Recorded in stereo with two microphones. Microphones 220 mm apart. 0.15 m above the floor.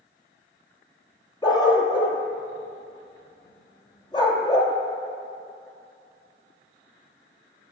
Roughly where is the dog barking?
Centre.